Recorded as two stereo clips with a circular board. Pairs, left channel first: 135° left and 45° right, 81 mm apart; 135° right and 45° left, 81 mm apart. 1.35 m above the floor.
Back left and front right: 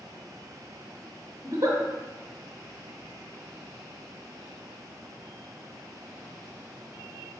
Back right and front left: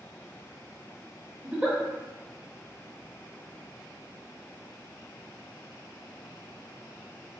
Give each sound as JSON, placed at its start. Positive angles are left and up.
{"t": 1.4, "sound": "a giggle", "azimuth_deg": -20, "distance_m": 1.1}